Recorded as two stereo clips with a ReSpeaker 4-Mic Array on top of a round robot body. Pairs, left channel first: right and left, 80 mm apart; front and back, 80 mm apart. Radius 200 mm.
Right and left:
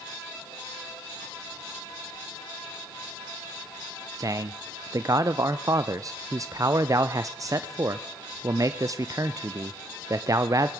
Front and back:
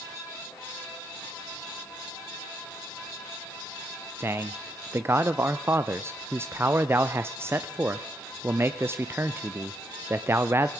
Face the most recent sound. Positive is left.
turn(degrees=125)